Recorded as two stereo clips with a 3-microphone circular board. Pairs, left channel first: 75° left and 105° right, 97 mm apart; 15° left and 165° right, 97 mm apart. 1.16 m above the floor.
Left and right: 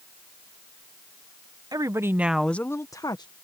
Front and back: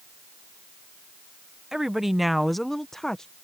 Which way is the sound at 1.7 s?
80° right.